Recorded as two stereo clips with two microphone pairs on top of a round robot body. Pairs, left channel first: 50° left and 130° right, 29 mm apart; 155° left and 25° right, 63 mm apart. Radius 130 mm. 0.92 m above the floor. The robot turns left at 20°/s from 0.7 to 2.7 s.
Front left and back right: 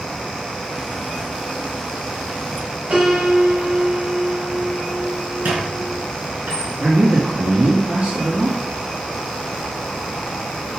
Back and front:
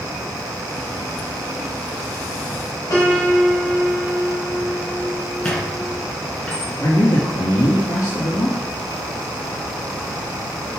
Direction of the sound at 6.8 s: 170° right.